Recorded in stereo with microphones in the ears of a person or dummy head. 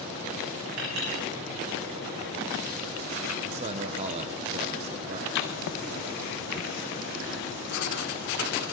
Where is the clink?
75° right (ahead or behind), 7 m.